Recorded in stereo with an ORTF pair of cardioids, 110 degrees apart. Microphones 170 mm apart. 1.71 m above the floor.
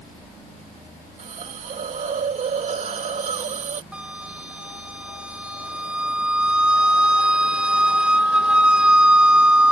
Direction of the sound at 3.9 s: 5° right.